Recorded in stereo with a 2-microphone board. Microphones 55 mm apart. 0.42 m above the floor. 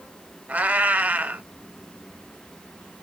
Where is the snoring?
I don't hear snoring.